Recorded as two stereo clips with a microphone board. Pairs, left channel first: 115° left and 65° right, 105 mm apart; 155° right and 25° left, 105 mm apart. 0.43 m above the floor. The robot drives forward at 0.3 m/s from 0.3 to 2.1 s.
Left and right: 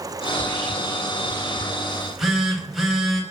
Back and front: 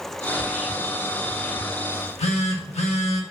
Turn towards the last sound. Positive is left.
turn(degrees=-160)